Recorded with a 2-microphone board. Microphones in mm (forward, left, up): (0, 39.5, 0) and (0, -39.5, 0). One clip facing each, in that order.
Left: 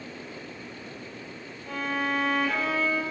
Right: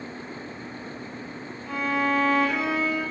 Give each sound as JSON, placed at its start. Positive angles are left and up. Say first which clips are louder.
{"t": 1.7, "sound": "a violin", "louder": "right 4 dB", "side_deg": -5, "distance_m": 0.8}